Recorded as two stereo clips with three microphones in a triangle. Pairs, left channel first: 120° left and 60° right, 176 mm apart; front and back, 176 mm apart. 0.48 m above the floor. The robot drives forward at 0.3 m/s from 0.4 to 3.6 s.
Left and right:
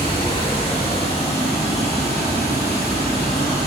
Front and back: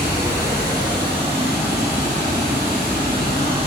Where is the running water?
125° left, 0.8 m; by 3.7 s 165° left, 1.4 m.